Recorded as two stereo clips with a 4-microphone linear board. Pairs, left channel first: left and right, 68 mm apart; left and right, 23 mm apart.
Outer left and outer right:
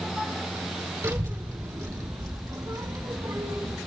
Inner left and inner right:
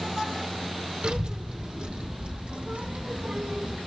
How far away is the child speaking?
About 3 m.